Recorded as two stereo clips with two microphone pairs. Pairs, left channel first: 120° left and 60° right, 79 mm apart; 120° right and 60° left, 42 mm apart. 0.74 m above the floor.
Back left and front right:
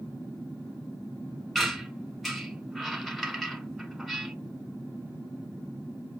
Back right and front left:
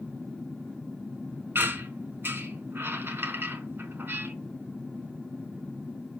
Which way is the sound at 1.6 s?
30° left.